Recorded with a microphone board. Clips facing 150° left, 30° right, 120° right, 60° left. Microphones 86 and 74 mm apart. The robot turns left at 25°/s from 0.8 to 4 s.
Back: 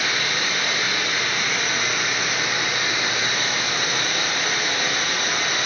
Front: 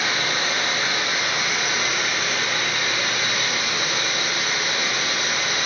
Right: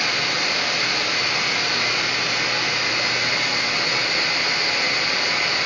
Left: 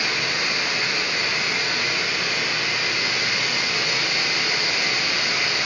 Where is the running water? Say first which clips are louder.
Front 1 dB, right 1 dB; 95° right, 3 m; by 5.7 s 175° right, 3 m.